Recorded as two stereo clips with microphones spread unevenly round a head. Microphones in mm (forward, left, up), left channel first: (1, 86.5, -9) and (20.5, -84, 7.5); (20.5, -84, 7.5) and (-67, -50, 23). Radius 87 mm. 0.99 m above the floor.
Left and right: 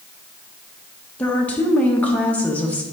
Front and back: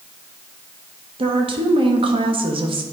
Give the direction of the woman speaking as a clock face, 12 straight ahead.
6 o'clock.